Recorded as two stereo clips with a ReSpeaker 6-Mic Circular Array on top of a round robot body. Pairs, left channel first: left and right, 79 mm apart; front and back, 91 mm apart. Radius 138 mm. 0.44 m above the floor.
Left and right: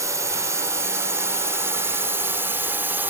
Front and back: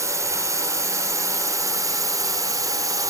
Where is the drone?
130° right; by 3.1 s 150° right.